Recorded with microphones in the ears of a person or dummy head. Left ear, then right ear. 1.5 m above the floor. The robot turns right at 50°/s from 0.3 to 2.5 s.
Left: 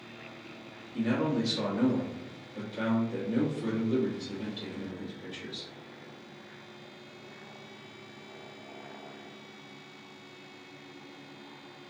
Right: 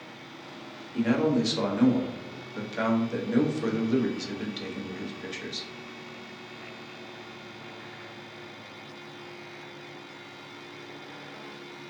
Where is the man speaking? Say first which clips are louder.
Right 5 dB; 125° right, 0.8 m; by 5.7 s 45° right, 0.8 m.